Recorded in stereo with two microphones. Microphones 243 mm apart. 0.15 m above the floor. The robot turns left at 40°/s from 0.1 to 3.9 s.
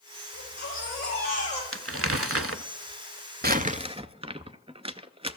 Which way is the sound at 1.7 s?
60° right (ahead or behind).